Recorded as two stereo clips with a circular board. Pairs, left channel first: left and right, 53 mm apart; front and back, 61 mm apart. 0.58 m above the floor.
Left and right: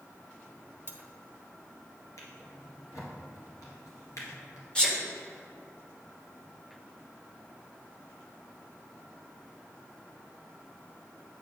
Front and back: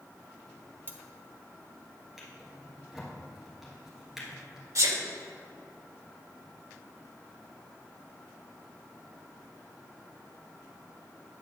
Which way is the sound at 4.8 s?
160° left.